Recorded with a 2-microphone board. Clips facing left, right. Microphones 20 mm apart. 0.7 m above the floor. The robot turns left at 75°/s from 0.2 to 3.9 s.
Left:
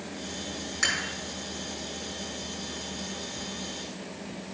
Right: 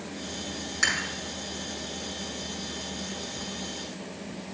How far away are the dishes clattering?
About 4.5 m.